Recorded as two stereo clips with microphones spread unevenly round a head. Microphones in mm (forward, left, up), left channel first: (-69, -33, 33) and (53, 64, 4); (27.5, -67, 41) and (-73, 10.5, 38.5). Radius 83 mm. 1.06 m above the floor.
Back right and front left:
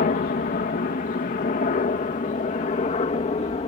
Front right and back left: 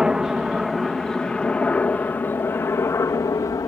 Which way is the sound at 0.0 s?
135° right.